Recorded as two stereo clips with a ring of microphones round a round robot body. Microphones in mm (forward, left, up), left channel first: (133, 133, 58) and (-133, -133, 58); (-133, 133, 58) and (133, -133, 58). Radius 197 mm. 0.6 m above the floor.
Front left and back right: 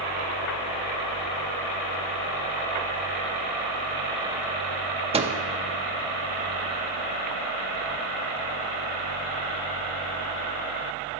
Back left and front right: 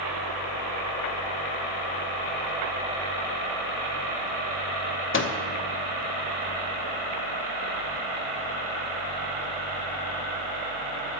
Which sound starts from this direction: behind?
A microwave, at 5.1 s.